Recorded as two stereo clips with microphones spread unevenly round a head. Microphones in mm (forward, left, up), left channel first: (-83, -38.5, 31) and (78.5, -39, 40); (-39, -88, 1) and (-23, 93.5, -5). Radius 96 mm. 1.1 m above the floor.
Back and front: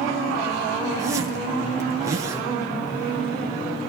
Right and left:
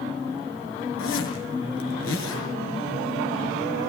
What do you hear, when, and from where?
1.0 s a zipper: 70° right, 5.5 m